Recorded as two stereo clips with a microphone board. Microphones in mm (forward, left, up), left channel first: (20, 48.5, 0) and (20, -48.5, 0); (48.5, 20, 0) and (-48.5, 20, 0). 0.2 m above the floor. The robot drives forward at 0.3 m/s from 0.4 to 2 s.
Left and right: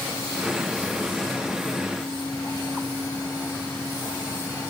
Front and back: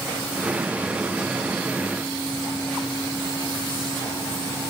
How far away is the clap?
I don't hear a clap.